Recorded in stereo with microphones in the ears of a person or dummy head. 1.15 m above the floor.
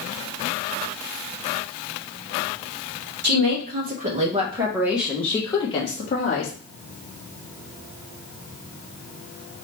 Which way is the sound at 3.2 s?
55° right (ahead or behind).